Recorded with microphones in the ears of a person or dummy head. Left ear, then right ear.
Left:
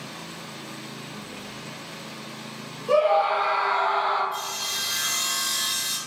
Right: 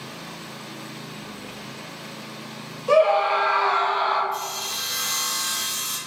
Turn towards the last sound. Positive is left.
turn(degrees=-5)  # may be behind; listen again after turning